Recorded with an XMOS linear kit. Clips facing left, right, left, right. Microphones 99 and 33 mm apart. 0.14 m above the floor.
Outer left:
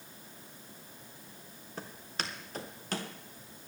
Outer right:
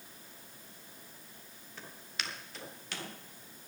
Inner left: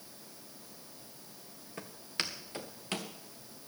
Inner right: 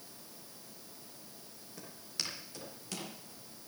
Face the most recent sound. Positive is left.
turn(degrees=40)  # may be behind; listen again after turning